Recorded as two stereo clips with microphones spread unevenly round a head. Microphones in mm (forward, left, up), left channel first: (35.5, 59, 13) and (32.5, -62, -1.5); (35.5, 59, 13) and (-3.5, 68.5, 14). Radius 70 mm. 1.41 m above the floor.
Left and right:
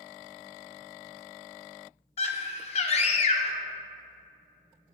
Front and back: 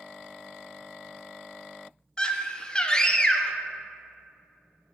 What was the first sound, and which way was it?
A scream, 55° left.